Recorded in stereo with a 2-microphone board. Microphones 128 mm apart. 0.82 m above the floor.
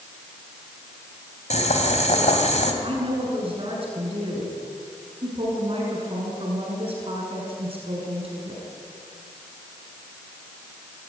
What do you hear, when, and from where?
1.5 s boiling: 60° left (ahead or behind), 3 m
2.8 s a woman speaking: 45° right (ahead or behind), 7.5 m